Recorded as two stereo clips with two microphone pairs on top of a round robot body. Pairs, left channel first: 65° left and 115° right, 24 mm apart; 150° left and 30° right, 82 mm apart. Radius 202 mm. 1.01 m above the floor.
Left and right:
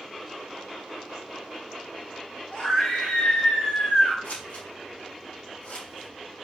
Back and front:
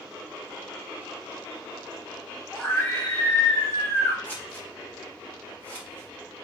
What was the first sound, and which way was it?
A scream, 80° left.